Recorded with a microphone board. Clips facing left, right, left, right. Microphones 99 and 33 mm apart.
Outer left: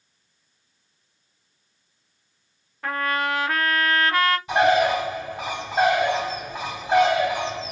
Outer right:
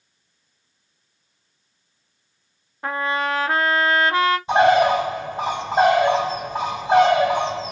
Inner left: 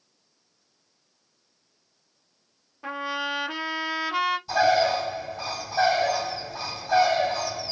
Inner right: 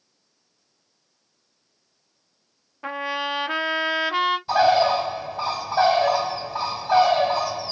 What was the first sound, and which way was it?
A trumpet, 20° right (ahead or behind).